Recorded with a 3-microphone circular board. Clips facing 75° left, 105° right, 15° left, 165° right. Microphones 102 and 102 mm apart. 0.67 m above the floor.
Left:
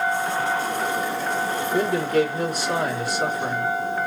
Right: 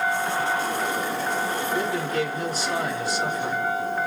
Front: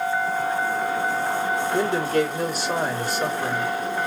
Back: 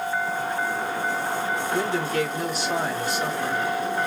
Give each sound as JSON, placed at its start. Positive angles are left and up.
{"t": 1.7, "sound": "a man speaking", "azimuth_deg": 50, "distance_m": 3.0}